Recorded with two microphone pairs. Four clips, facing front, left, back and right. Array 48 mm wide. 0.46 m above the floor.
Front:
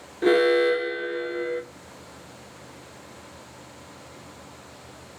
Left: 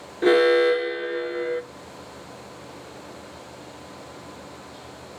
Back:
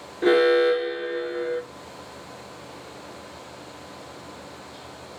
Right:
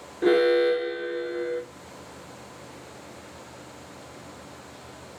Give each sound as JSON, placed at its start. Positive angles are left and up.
{"t": 0.2, "sound": "an alarm", "azimuth_deg": 115, "distance_m": 2.0}